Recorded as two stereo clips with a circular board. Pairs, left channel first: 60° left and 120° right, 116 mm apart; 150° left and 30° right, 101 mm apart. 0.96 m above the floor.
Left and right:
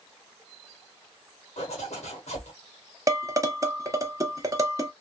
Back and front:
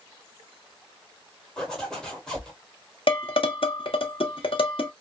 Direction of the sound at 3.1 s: Straight behind.